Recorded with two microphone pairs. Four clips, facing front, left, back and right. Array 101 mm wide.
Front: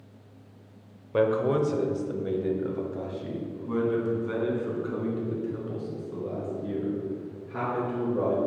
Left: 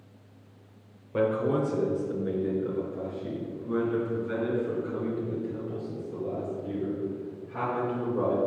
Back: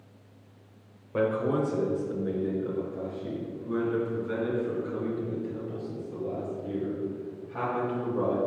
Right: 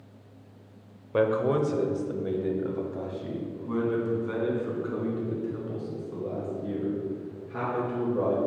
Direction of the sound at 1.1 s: 75° right.